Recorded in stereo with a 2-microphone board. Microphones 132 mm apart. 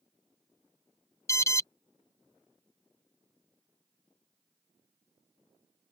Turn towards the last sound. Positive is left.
turn(degrees=20)  # may be behind; listen again after turning